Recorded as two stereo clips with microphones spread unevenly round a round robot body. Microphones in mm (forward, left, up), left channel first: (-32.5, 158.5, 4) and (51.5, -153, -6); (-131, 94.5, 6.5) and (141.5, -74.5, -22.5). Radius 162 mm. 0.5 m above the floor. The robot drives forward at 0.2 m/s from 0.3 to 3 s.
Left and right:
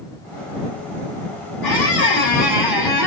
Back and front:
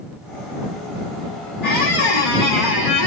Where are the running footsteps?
I don't hear running footsteps.